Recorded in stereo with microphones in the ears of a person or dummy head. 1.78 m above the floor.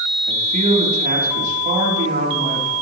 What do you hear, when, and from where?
0.3 s a man speaking: 45° right (ahead or behind), 3.5 m